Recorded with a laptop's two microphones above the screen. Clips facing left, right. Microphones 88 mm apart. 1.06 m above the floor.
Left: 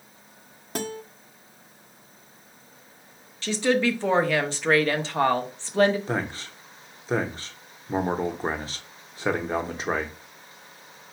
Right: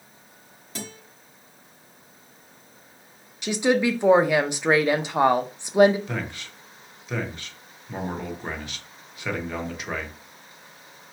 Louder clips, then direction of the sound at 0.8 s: Left 7 dB; 50° left (ahead or behind).